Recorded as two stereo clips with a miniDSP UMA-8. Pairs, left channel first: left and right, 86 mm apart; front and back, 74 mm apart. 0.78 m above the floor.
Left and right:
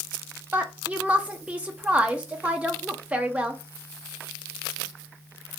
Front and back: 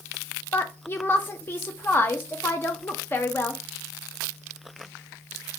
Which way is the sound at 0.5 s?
25° right.